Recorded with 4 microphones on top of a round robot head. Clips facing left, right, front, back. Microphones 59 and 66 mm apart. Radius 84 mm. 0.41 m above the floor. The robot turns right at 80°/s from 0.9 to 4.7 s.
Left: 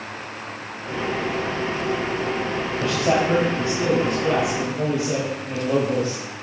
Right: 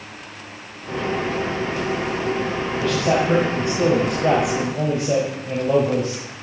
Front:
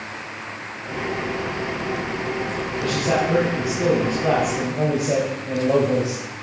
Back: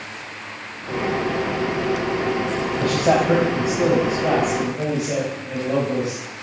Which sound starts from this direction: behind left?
A man speaking, at 2.8 s.